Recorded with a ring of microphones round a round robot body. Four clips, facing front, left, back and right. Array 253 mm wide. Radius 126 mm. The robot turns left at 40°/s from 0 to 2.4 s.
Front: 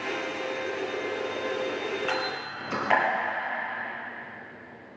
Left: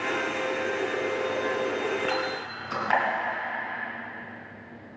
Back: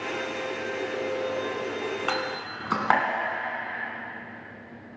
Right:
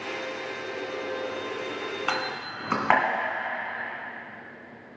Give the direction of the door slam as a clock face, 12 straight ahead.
4 o'clock.